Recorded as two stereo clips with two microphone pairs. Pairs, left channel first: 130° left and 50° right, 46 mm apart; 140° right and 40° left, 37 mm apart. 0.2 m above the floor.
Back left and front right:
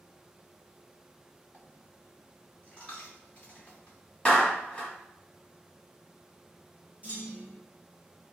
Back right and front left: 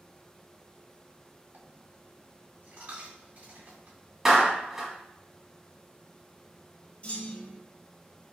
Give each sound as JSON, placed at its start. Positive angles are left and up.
{"t": 1.5, "sound": "a dropped coin", "azimuth_deg": 65, "distance_m": 1.9}
{"t": 4.2, "sound": "a clap", "azimuth_deg": 100, "distance_m": 1.3}
{"t": 7.0, "sound": "a clunk", "azimuth_deg": -100, "distance_m": 1.8}